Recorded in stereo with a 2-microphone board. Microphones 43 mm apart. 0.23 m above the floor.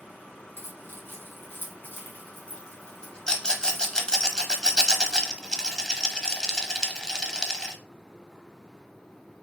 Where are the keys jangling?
60° left (ahead or behind), 1.8 m; by 4.3 s 5° left (ahead or behind), 2.5 m.